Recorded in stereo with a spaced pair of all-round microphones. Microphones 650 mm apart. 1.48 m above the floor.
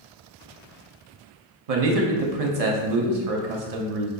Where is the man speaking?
65° right (ahead or behind), 0.8 m.